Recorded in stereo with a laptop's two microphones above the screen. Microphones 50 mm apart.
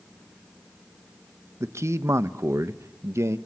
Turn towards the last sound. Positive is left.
turn(degrees=-65)  # may be behind; listen again after turning